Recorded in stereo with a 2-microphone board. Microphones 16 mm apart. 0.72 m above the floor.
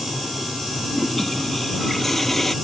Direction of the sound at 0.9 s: 15° left (ahead or behind).